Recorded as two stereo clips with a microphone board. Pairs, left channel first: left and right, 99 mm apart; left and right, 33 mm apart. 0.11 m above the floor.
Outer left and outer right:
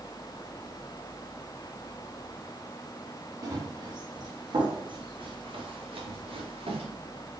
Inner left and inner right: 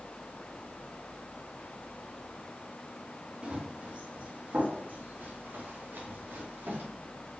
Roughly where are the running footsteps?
Right.